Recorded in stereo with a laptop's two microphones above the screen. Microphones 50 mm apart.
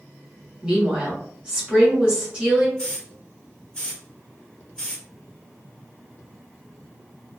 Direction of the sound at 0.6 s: 20° right (ahead or behind).